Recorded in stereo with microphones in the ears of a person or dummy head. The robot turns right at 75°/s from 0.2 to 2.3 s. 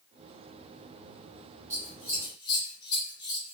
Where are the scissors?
10° right (ahead or behind), 1.3 m; by 3.5 s 35° left (ahead or behind), 1.3 m.